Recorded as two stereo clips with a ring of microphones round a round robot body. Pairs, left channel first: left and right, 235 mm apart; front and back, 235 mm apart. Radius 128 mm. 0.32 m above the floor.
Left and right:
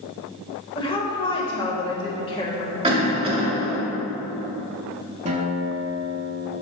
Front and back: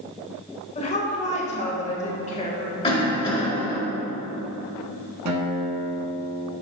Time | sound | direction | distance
0.8 | a woman speaking | 35° left | 1.2 m
2.8 | a cough | 45° right | 1.7 m
5.2 | a guitar | 155° right | 1.0 m